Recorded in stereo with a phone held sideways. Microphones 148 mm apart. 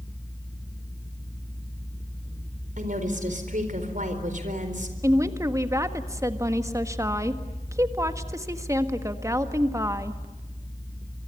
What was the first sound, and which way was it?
A woman speaking, 60° right (ahead or behind).